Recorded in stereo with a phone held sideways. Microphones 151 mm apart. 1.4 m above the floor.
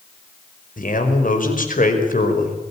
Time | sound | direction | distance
0.8 | a man speaking | 70° left (ahead or behind) | 5 m